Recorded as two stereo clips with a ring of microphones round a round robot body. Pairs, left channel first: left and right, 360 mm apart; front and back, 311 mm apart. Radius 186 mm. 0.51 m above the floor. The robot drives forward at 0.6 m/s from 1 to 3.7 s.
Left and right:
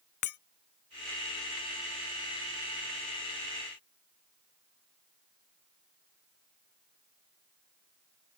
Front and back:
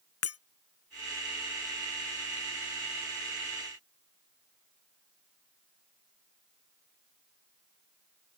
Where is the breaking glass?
45° left.